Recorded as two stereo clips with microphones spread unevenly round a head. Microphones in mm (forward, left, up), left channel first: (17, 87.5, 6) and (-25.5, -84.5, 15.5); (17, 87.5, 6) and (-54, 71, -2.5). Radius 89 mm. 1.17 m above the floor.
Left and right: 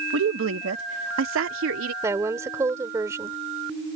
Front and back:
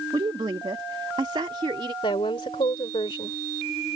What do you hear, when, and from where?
0.1 s a woman speaking: 115° right
2.0 s a woman speaking: 30° right